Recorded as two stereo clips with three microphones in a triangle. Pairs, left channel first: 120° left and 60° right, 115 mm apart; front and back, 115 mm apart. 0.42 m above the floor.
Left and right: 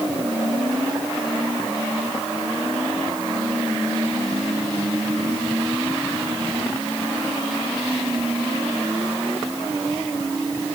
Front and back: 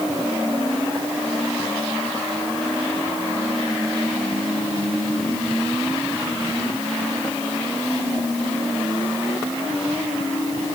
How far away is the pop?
No pop in this recording.